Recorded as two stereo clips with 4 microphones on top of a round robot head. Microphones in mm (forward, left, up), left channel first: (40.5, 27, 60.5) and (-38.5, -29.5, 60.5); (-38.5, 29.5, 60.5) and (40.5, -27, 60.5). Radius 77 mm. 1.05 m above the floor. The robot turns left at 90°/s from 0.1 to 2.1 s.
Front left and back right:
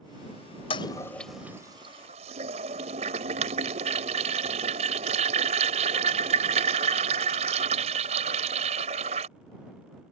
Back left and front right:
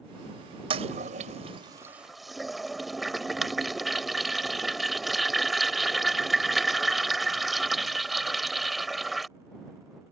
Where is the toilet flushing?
Straight ahead; by 9.3 s 125° right.